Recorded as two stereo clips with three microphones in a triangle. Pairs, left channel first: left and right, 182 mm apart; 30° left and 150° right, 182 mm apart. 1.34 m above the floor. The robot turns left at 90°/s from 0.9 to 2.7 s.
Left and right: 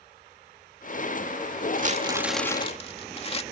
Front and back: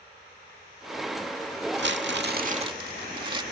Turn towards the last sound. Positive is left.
turn(degrees=145)